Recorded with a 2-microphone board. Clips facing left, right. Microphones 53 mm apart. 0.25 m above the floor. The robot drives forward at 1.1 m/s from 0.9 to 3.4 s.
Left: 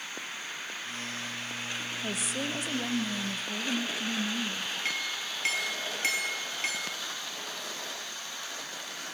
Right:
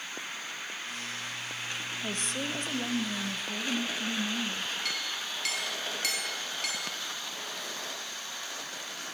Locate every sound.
2.0 s a woman speaking: 5° left (ahead or behind), 1.3 m
4.8 s a clink: 30° left (ahead or behind), 3.5 m